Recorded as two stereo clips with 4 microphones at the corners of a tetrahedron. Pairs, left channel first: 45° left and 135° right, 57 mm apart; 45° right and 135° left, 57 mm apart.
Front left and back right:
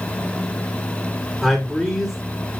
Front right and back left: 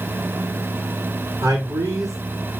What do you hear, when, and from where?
1.4 s a man speaking: 140° left, 3.5 m